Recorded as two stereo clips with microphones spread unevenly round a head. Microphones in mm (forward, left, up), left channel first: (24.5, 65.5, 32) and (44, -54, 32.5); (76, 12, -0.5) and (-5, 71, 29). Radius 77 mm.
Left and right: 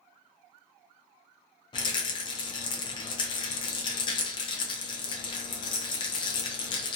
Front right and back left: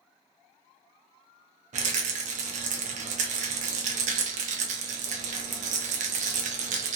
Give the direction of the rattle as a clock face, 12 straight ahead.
7 o'clock.